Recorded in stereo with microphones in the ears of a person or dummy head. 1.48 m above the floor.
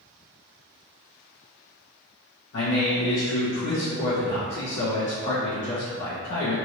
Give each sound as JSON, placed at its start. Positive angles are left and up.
{"t": 2.5, "sound": "a man speaking", "side_deg": 90, "distance_m": 1.5}